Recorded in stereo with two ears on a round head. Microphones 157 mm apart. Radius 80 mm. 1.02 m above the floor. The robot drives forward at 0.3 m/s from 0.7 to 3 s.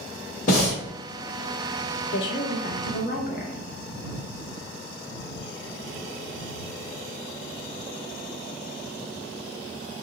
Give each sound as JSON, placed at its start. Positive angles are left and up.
{"t": 0.5, "sound": "breathing", "side_deg": 45, "distance_m": 1.3}
{"t": 2.1, "sound": "a woman speaking", "side_deg": 75, "distance_m": 0.6}